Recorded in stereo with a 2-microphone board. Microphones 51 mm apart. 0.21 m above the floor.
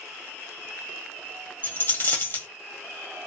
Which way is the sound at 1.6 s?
40° left (ahead or behind).